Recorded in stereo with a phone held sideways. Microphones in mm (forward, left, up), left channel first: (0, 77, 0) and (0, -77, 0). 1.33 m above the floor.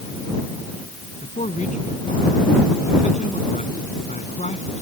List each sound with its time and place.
1.2 s a man speaking: 50° left (ahead or behind)